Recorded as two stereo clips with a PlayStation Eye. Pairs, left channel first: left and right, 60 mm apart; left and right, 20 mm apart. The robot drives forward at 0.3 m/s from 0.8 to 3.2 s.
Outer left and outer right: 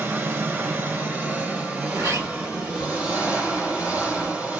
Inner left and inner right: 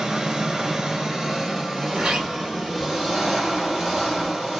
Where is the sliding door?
75° right (ahead or behind), 1.2 m; by 4.3 s 65° right (ahead or behind), 1.3 m.